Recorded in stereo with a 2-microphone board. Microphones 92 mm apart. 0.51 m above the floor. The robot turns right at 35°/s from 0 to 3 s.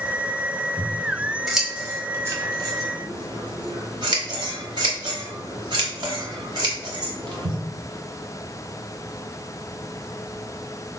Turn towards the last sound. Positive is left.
turn(degrees=-55)  # may be behind; listen again after turning